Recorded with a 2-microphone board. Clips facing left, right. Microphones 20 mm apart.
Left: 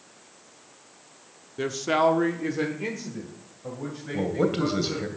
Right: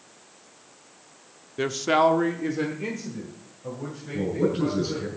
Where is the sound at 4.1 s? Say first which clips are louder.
Even; 70° left (ahead or behind), 2.5 m.